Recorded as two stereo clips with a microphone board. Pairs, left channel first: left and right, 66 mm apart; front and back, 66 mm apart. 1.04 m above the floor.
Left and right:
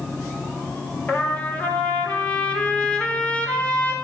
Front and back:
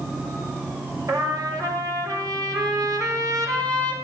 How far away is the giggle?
No giggle in this recording.